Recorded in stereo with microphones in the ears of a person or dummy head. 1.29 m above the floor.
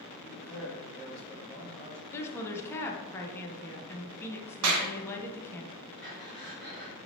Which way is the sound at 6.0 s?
50° right (ahead or behind).